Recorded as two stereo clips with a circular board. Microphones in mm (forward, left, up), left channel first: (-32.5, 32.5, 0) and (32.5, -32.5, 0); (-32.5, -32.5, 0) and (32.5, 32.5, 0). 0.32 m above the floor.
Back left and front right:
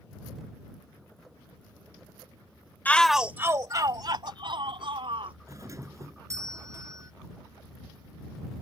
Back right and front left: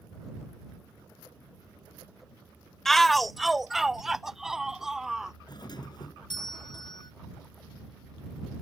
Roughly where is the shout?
Behind left.